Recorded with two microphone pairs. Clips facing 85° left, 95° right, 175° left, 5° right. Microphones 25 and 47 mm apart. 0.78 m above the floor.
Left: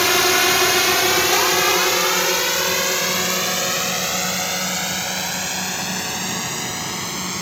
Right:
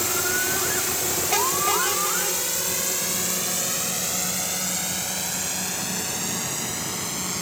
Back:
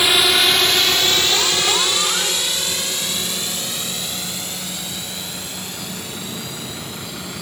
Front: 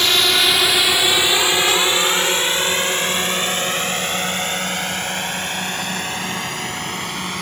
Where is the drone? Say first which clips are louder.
Left 9 dB, back 1 dB; 95° left; by 7.4 s 20° left.